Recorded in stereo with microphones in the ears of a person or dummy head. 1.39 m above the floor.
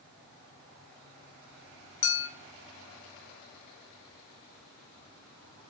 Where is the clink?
60° left (ahead or behind), 1.0 m.